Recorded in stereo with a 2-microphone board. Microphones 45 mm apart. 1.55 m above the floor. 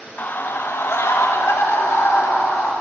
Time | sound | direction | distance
0.2 | a scream | 40° left (ahead or behind) | 1.4 m